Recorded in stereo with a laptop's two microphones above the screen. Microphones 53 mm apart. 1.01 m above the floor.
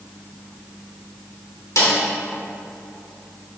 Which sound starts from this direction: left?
A snare drum, at 1.8 s.